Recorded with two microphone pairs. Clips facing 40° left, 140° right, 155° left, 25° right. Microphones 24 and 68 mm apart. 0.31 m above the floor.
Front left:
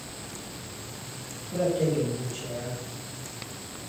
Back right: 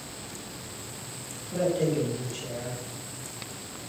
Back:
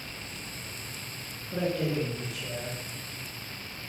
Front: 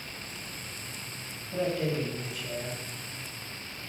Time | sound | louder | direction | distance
1.5 | a man speaking | even, even | 145° left | 4.5 m